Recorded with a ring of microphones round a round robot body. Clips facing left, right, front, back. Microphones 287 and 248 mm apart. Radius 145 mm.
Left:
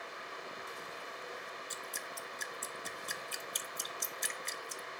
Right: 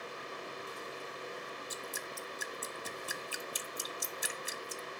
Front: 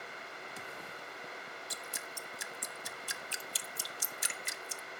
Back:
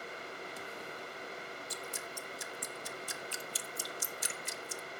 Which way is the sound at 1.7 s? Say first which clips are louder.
Right 4 dB, back 4 dB; 10° right.